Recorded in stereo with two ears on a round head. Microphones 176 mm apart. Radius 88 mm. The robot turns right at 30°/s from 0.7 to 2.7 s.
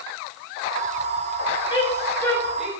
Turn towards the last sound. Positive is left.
turn(degrees=-5)  # may be behind; listen again after turning